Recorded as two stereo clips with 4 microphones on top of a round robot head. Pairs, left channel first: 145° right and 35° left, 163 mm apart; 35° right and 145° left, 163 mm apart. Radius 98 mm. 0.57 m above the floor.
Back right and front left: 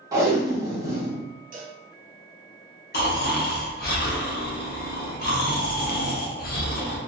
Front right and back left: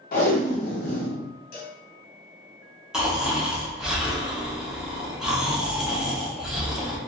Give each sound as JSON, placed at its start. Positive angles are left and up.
{"t": 0.1, "sound": "tape being pulled", "azimuth_deg": -30, "distance_m": 0.9}
{"t": 1.5, "sound": "a cowbell", "azimuth_deg": 0, "distance_m": 0.6}
{"t": 2.9, "sound": "snoring", "azimuth_deg": -130, "distance_m": 0.8}